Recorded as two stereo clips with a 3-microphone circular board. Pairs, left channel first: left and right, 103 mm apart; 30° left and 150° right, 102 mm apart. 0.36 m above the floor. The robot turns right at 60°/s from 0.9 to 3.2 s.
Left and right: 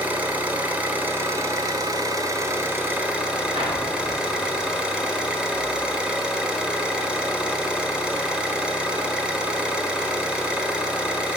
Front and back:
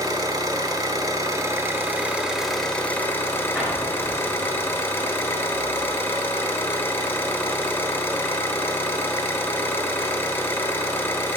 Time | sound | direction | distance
0.0 | an engine running | 155° right | 1.1 m
3.5 | an explosion | 65° right | 2.5 m